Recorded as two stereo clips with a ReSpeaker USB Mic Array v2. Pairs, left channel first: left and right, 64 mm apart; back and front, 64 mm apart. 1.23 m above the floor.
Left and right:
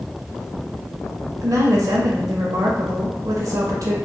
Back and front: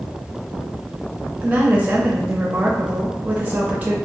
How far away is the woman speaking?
About 0.6 m.